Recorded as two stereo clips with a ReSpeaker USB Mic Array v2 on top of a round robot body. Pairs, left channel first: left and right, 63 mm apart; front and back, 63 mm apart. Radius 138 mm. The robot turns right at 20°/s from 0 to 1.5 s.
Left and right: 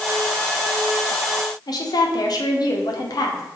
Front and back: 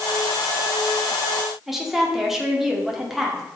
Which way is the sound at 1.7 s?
95° left.